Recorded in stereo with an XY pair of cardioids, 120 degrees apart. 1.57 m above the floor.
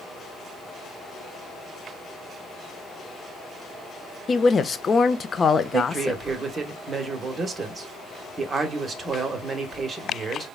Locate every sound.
4.3 s a woman speaking: 30° left, 0.5 m
5.7 s a man speaking: 30° right, 1.1 m